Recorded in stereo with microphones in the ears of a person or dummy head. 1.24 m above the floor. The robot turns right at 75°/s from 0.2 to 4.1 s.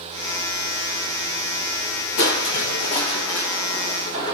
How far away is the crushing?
About 1.8 m.